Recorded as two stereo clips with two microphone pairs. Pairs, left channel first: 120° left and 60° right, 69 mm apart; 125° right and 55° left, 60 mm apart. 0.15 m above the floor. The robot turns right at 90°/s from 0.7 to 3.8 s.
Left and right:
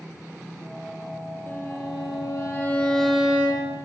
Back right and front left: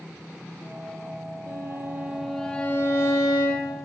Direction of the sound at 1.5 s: 65° left.